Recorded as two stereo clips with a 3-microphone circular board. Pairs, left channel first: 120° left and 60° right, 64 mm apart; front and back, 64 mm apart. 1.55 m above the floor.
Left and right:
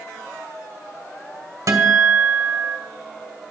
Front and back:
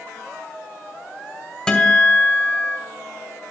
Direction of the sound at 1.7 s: 75° right.